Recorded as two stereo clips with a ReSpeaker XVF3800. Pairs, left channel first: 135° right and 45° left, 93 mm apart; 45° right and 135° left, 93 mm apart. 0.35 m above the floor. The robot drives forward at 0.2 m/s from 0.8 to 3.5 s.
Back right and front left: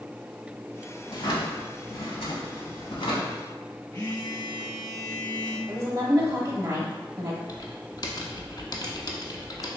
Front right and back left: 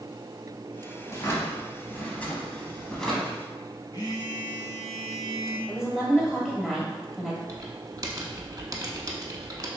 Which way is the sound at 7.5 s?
175° right.